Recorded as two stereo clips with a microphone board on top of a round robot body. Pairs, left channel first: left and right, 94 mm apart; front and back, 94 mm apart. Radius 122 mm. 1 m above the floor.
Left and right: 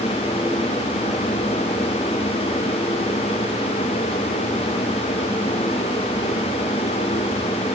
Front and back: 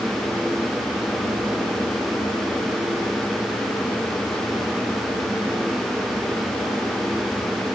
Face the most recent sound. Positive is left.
No sound to turn to.